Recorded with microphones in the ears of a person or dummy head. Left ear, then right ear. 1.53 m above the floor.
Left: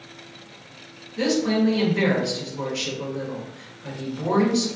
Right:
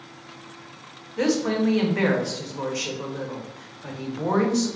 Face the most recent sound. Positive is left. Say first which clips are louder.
# left 1 dB
turn(degrees=-20)  # may be behind; listen again after turning